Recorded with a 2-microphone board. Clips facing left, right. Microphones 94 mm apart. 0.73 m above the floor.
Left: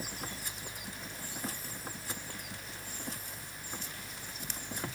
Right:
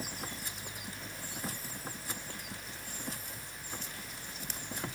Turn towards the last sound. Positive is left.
No sound to turn to.